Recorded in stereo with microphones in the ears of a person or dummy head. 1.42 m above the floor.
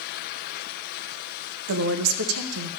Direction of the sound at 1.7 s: 80° right.